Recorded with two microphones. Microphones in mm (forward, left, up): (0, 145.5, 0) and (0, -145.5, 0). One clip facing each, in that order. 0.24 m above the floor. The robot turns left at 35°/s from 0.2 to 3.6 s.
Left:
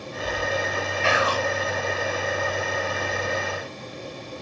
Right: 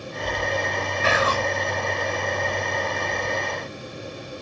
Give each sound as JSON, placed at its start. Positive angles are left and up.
{"t": 1.0, "sound": "whispering", "side_deg": -45, "distance_m": 3.0}